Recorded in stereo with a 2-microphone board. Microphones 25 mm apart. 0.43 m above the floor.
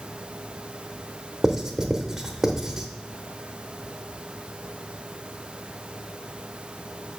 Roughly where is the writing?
Right.